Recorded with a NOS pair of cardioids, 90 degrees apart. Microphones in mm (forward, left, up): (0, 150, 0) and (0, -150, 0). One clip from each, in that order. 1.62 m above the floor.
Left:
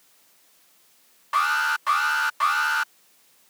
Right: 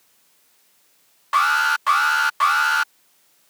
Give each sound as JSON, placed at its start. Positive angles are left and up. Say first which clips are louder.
{"t": 1.3, "sound": "an alarm", "louder": "right 4 dB", "azimuth_deg": -35}